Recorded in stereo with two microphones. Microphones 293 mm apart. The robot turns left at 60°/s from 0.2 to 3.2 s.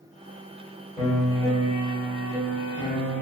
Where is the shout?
I don't hear a shout.